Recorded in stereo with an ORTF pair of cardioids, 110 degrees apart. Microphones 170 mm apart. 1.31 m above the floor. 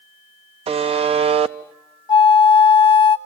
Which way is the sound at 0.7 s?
35° right.